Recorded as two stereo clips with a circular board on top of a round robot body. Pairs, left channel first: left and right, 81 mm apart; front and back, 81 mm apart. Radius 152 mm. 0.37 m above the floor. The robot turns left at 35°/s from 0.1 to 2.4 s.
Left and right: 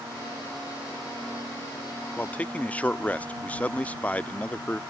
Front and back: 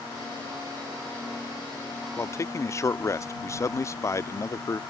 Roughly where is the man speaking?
Ahead left.